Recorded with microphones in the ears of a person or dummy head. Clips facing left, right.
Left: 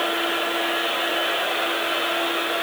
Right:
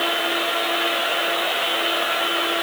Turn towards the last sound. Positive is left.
No sound to turn to.